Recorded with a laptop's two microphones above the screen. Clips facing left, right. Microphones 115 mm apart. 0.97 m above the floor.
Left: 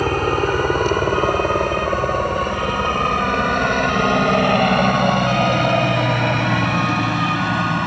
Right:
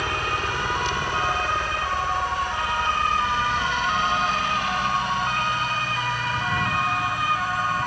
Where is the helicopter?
45° left (ahead or behind); by 7.9 s 70° left (ahead or behind).